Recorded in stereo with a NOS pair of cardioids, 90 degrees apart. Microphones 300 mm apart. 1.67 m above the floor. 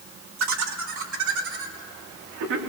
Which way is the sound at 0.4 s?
60° right.